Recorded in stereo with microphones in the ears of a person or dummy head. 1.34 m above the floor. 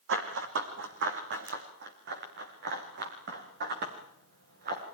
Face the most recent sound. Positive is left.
turn(degrees=-55)  # may be behind; listen again after turning